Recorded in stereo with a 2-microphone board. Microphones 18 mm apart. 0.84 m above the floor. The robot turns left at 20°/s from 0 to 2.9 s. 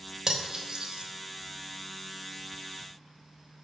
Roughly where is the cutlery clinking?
Right.